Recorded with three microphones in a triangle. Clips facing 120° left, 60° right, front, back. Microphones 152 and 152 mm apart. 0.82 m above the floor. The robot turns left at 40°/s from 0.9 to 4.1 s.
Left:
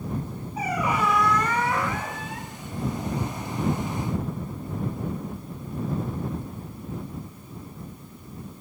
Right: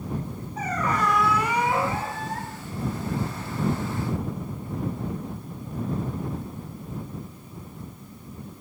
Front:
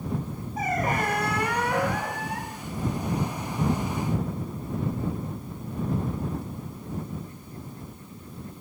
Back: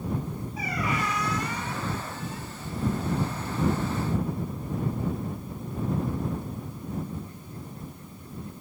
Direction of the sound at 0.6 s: 40° left.